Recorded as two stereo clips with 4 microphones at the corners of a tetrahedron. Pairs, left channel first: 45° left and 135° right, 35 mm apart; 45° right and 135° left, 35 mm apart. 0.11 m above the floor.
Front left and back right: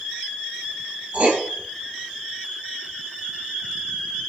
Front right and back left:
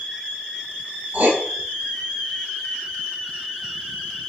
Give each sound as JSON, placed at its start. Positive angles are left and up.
{"t": 1.1, "sound": "writing", "azimuth_deg": 175, "distance_m": 1.5}